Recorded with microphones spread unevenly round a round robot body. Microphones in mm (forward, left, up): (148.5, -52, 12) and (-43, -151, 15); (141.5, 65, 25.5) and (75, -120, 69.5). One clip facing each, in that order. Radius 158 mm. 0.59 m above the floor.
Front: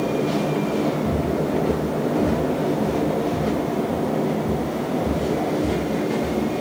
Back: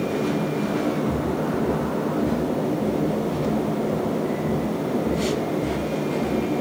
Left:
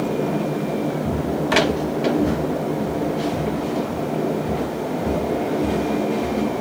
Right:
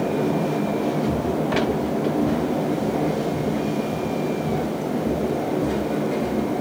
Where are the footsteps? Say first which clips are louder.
Front 2 dB, even; 90° left, 0.9 m; by 6.6 s 45° left, 3.5 m.